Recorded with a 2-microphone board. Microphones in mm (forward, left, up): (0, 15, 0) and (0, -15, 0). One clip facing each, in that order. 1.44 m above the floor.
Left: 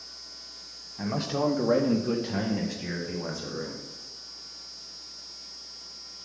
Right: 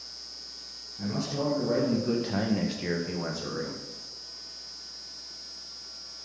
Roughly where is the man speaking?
Left.